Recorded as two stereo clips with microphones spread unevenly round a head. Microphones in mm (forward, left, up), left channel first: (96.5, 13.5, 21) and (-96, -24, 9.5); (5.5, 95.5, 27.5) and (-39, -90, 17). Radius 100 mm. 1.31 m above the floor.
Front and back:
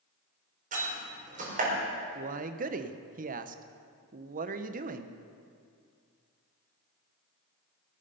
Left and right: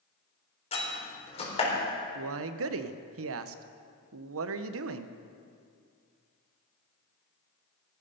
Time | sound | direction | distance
0.7 | a door slam | 135° left | 4 m
2.1 | a man speaking | 115° right | 0.9 m